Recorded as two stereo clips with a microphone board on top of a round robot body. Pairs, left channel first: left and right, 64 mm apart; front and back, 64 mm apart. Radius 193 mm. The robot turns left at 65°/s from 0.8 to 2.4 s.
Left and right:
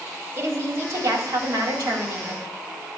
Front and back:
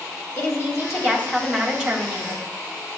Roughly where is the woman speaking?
Ahead right.